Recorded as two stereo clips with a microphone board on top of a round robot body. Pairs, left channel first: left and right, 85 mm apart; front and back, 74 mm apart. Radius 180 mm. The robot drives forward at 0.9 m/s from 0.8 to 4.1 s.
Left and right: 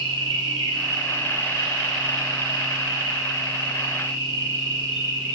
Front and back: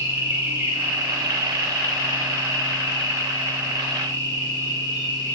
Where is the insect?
120° right, 4 m; by 5.4 s 145° right, 6 m.